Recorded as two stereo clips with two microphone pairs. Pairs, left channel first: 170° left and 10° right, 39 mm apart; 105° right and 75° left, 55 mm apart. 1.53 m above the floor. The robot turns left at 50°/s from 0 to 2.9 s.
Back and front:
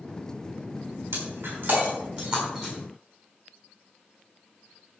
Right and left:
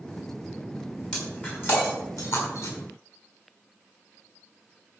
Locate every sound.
1.1 s breaking glass: 25° right, 5.5 m; by 2.7 s 105° right, 5.5 m